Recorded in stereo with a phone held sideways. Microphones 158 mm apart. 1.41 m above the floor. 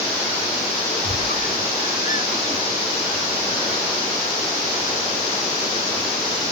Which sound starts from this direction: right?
A squeak, at 1.0 s.